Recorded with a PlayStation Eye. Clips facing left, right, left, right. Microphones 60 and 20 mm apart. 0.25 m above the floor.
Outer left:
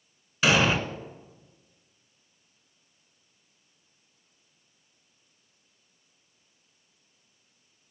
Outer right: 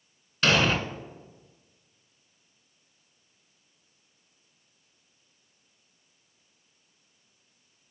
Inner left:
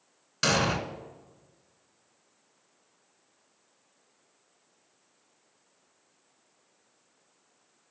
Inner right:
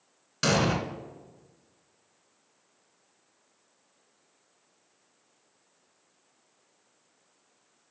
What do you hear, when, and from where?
0.4 s an explosion: 10° left (ahead or behind), 0.8 m